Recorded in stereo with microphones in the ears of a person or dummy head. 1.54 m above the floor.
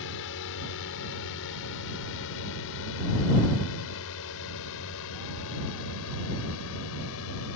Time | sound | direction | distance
0.0 | a drone | 70° left (ahead or behind) | ?